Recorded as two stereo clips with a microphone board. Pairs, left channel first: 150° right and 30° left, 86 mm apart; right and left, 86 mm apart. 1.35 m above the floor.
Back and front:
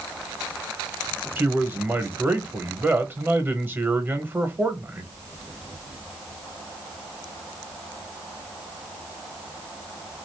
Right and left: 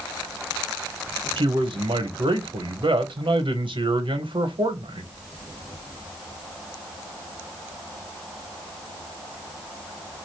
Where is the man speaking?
100° left, 0.9 m.